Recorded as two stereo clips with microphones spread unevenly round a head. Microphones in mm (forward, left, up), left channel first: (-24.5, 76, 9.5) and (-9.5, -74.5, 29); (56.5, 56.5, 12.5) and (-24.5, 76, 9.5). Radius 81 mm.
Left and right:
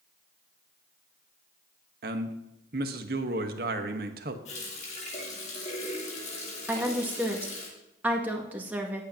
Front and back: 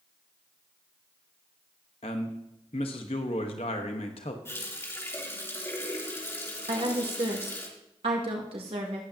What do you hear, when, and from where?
2.0 s a man speaking: 50° right, 1.2 m
4.5 s a running tap: 45° left, 3 m
6.7 s a woman speaking: 165° right, 2 m